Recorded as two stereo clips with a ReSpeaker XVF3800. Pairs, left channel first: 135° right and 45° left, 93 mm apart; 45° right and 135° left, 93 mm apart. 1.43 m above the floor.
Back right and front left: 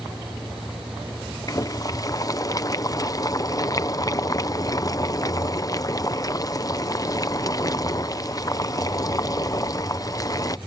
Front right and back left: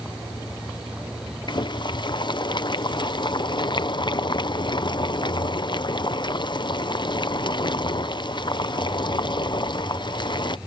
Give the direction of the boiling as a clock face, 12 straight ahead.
3 o'clock.